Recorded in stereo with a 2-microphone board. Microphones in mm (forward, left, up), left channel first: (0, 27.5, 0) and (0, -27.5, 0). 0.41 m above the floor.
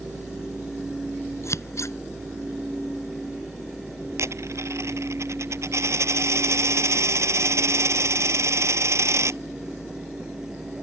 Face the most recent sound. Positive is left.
turn(degrees=-60)  # may be behind; listen again after turning